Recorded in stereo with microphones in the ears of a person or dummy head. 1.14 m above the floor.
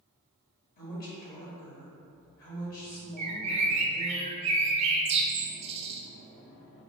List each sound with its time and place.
0.8 s a woman speaking: 50° left (ahead or behind), 1.8 m
3.2 s a bird: 30° right (ahead or behind), 0.6 m